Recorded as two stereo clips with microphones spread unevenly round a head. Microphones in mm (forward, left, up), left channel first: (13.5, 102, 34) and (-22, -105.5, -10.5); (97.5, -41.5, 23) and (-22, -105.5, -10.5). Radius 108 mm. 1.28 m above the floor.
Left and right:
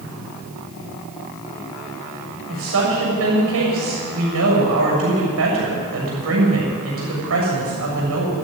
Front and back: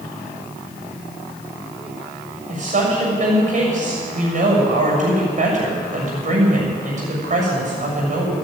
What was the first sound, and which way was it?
A woman speaking, 125° right.